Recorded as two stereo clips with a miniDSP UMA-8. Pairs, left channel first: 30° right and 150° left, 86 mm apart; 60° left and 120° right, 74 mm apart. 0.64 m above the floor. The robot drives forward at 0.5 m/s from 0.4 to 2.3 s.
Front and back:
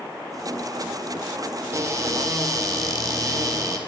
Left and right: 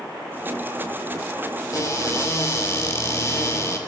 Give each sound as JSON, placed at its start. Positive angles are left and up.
{"t": 1.7, "sound": "a cupboard door", "azimuth_deg": 100, "distance_m": 2.5}